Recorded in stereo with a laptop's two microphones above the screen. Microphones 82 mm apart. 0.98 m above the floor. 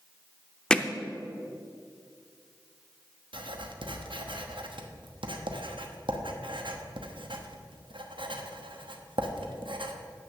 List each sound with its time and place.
0.7 s hammering: 10° left (ahead or behind), 0.6 m
3.3 s writing: 85° right, 1.0 m